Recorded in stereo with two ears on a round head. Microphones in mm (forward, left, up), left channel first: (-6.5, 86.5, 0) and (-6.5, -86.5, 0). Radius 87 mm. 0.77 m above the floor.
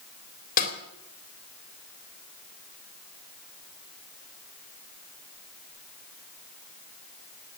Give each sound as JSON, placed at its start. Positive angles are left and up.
{"t": 0.6, "sound": "a snare drum", "side_deg": 50, "distance_m": 3.5}